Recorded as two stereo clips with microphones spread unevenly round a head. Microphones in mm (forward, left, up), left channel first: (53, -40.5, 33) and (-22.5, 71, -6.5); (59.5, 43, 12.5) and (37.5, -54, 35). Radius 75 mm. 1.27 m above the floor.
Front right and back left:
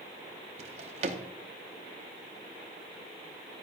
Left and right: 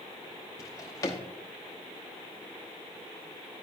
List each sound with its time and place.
0.6 s a drawer: 130° left, 0.7 m